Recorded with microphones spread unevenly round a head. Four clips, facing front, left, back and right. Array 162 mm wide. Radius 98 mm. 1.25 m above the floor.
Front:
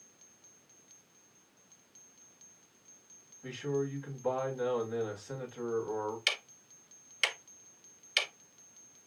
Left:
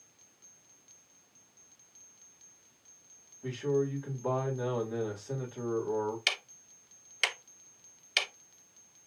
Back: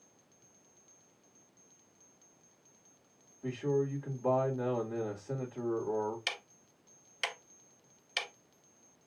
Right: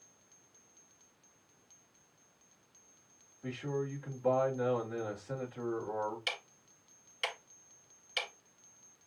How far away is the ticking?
About 0.8 m.